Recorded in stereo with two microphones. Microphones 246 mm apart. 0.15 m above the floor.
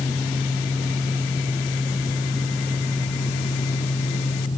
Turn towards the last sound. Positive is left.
No sound to turn to.